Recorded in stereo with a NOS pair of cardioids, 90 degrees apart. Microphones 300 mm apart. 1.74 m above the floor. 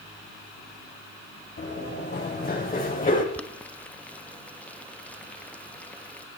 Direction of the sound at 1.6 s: 40° left.